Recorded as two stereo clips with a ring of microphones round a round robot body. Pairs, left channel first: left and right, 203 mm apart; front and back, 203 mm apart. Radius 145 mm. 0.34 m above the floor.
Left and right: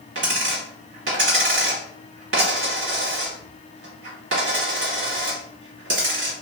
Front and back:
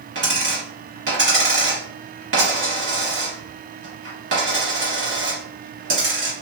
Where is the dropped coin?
135° right, 0.6 m.